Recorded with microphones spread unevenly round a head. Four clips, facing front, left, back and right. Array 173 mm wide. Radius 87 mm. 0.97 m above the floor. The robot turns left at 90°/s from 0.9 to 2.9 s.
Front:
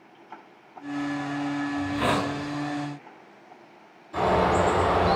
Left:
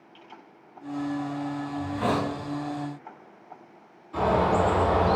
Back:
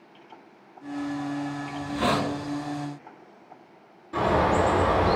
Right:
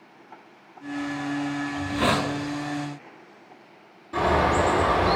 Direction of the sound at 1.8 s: 45° right.